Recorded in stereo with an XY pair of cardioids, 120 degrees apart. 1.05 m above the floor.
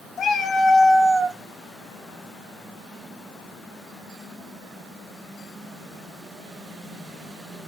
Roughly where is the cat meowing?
Ahead left.